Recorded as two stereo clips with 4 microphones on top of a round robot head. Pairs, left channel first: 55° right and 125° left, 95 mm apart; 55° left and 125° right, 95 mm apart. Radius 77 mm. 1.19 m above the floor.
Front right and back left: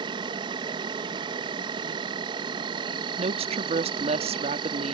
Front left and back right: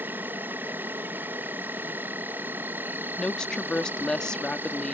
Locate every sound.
0.0 s an insect: 165° left
3.2 s a woman speaking: 140° left